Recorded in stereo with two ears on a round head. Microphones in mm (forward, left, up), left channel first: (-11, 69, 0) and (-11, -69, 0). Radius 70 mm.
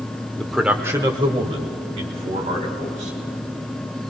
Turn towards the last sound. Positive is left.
turn(degrees=-50)  # may be behind; listen again after turning